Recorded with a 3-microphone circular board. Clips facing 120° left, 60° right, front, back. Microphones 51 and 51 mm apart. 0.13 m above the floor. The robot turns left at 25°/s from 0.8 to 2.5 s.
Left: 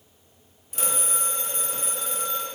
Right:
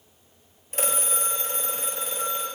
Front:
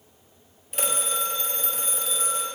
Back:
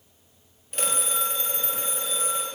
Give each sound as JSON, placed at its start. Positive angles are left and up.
{"t": 0.7, "sound": "a phone ringing", "azimuth_deg": -85, "distance_m": 1.3}